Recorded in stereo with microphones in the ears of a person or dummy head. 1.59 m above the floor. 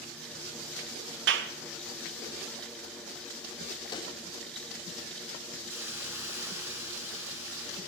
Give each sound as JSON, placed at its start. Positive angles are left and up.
{"t": 1.3, "sound": "a clap", "side_deg": -75, "distance_m": 1.8}
{"t": 3.9, "sound": "a pop", "side_deg": 25, "distance_m": 3.5}
{"t": 5.7, "sound": "a hiss", "side_deg": -10, "distance_m": 4.0}